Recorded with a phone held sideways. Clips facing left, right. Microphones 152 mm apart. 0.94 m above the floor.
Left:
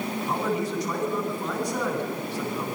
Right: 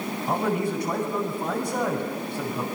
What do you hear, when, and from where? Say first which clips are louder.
0.3 s a man speaking: right 3 dB; 55° right (ahead or behind), 9.5 m